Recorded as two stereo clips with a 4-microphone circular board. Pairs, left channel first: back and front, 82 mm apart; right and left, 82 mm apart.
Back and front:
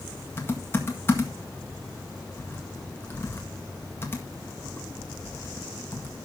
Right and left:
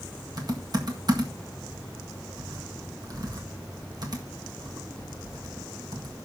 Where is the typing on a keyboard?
120° left, 1.7 m.